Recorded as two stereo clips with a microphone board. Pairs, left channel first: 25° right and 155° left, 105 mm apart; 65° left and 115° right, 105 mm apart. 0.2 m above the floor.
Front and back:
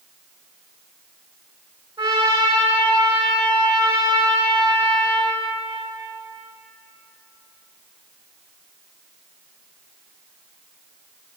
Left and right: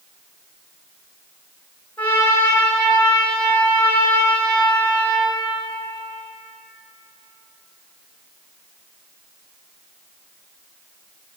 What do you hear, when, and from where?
2.0 s a trumpet: 140° left, 2.5 m